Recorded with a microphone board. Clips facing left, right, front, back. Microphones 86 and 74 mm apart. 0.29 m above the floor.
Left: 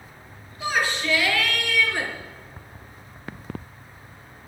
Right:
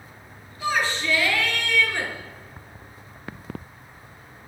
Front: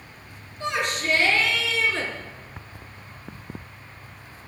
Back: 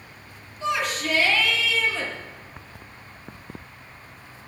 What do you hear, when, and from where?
0.6 s a shout: 20° left, 5 m; by 2.1 s 10° left, 4.5 m